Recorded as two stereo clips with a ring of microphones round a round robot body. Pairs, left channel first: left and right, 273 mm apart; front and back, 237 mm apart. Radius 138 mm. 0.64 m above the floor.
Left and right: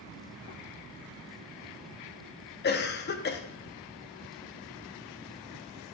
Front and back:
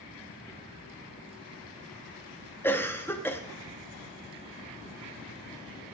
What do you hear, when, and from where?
2.6 s a cough: 75° left, 0.8 m